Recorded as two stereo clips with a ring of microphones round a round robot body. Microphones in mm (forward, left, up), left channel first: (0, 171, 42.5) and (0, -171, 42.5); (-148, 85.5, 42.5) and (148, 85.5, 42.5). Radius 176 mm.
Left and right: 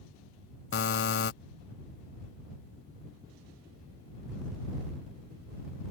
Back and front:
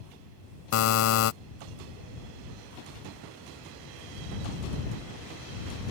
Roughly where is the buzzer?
Behind left.